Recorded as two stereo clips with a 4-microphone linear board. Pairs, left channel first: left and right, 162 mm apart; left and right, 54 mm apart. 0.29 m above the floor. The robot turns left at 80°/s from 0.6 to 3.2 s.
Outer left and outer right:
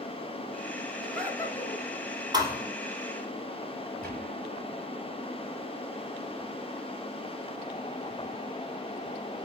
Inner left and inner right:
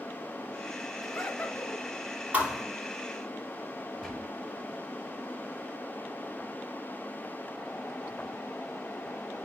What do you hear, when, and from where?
1.0 s laughter: 170° right, 3 m; by 1.9 s 120° left, 3 m
2.3 s a thud: 25° right (ahead or behind), 2.5 m; by 2.6 s centre (ahead or behind), 2.5 m
4.0 s a gunshot: 10° left (ahead or behind), 4.5 m